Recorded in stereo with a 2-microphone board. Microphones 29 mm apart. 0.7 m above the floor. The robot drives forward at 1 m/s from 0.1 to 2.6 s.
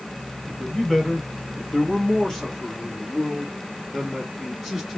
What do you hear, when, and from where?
0.5 s a man speaking: 10° left (ahead or behind), 1.2 m; by 5.0 s 5° left (ahead or behind), 1.7 m